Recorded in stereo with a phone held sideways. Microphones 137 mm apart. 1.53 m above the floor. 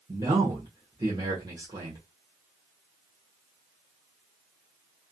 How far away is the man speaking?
About 1.0 m.